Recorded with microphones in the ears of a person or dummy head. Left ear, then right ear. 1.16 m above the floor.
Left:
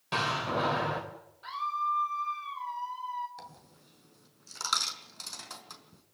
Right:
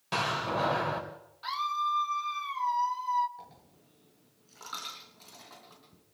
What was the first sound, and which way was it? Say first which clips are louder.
A door slam: even; 5° right (ahead or behind).